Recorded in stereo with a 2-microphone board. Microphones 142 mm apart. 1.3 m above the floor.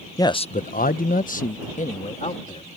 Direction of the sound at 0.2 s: 25° left (ahead or behind).